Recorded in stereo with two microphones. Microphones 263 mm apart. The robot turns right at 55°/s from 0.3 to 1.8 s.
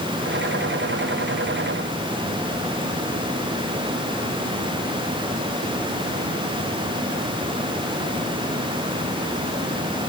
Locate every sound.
Only background noise.